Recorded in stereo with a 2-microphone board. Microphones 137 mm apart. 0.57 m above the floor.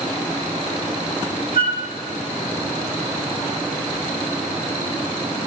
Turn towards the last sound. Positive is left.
turn(degrees=75)  # may be behind; listen again after turning